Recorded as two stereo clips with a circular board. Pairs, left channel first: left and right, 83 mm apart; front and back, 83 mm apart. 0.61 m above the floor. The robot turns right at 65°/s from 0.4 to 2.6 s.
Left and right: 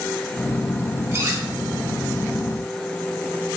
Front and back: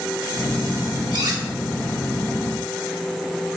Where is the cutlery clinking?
150° right, 0.9 m; by 1.4 s 130° right, 0.9 m.